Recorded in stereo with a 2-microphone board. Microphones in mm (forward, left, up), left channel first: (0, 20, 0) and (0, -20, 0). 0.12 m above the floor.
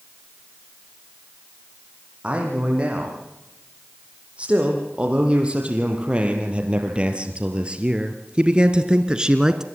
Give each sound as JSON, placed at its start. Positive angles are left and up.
{"t": 2.2, "sound": "a man speaking", "side_deg": -30, "distance_m": 5.5}